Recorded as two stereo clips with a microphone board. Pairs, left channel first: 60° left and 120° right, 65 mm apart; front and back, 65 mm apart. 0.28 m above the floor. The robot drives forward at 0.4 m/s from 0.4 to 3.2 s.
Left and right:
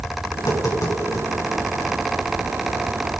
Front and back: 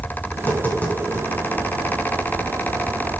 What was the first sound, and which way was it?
Tapping, 55° left.